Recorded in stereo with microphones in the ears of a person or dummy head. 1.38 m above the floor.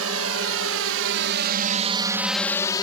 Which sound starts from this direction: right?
A drone, at 0.0 s.